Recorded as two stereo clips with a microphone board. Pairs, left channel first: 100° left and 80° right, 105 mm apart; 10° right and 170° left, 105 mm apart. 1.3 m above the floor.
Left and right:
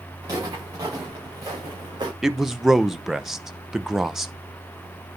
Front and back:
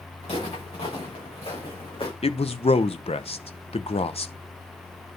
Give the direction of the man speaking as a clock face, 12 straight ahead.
12 o'clock.